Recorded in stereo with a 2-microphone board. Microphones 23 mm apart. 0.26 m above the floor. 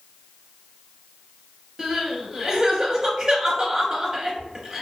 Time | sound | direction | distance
1.8 | crying | 35° right (ahead or behind) | 0.7 m